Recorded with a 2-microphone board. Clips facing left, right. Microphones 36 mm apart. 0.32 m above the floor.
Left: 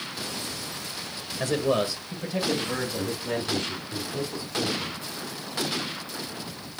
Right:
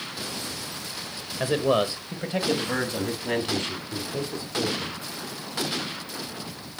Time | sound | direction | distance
1.4 | a man speaking | 20° right (ahead or behind) | 1.0 m